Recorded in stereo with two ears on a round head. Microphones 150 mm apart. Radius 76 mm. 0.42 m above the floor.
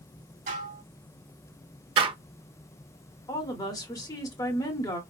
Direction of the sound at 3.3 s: 25° left (ahead or behind).